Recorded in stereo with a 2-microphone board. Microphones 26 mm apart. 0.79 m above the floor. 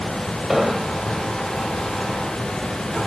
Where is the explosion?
20° right (ahead or behind).